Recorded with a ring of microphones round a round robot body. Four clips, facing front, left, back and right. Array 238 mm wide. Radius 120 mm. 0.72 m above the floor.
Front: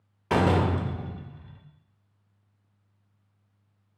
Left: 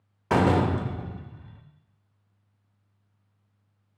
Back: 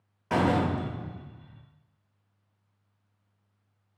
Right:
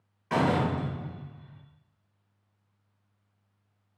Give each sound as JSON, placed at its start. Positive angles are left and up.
{"t": 0.3, "sound": "a door slam", "azimuth_deg": 70, "distance_m": 0.6}